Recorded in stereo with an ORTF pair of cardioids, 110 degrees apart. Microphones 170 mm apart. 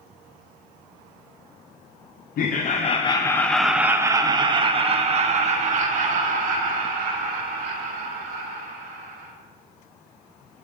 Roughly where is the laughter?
Ahead left.